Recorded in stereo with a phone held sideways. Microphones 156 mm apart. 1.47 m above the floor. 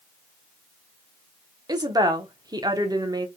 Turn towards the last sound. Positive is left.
turn(degrees=-25)  # may be behind; listen again after turning